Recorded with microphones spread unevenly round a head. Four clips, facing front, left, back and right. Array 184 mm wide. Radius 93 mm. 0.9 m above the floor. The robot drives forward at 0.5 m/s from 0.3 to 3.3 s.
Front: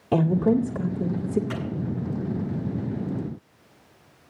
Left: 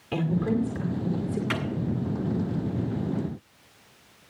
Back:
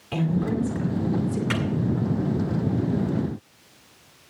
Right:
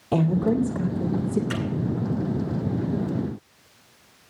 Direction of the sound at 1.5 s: 140° left.